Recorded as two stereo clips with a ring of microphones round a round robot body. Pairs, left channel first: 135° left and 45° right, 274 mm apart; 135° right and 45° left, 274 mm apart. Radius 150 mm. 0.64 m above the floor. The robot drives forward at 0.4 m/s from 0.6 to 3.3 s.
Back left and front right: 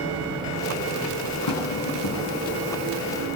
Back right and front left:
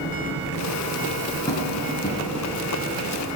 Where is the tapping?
150° left, 6 m.